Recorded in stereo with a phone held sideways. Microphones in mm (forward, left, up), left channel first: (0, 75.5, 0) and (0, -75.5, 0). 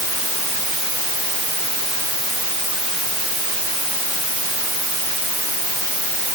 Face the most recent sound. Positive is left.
No sound to turn to.